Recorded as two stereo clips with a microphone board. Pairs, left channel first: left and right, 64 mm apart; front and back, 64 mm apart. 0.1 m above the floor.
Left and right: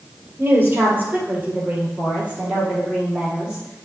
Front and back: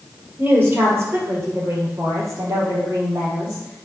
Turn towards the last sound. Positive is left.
turn(degrees=-165)